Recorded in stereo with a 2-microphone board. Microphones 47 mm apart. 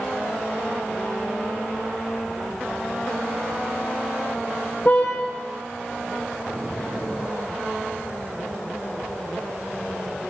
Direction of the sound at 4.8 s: 35° left (ahead or behind).